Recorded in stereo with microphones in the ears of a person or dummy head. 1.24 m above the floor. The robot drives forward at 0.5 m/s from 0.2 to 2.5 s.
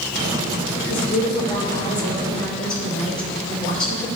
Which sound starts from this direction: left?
A woman speaking, at 0.9 s.